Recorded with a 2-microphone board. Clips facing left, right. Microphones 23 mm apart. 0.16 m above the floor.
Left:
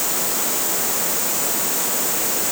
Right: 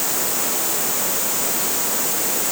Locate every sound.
Only background noise.